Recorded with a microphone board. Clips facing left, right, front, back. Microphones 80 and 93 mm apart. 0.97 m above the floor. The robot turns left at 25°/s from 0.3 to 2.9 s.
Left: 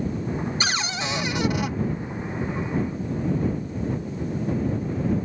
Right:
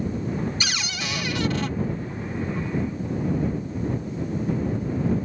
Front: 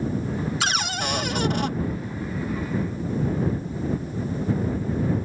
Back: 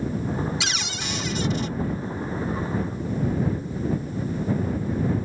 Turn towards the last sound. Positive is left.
turn(degrees=-20)